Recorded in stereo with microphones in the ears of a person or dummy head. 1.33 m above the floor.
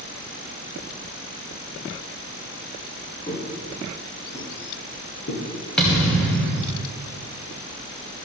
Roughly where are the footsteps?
Left.